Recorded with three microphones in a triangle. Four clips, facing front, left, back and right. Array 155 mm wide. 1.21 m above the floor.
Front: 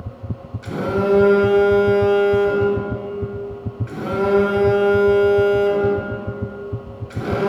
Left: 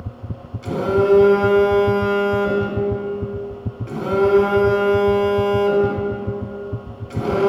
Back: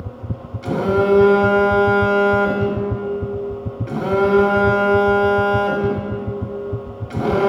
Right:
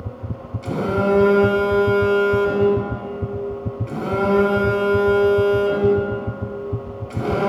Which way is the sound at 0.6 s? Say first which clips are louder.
Left 3 dB, back 3 dB; 175° left.